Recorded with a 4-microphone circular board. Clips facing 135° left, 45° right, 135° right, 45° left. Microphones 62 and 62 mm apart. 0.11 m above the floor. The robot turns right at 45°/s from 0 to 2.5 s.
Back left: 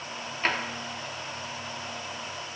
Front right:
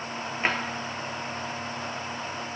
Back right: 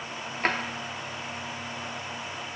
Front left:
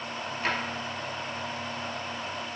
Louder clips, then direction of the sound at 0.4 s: Front right 1 dB, back right 3 dB; 115° right.